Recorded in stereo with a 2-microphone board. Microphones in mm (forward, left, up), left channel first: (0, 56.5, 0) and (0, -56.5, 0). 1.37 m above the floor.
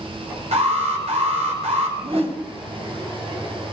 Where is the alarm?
75° right (ahead or behind), 4.5 m.